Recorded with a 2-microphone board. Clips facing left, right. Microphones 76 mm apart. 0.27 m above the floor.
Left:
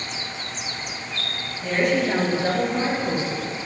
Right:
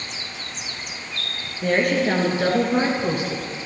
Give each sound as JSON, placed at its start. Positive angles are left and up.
{"t": 1.6, "sound": "a woman speaking", "side_deg": -50, "distance_m": 4.5}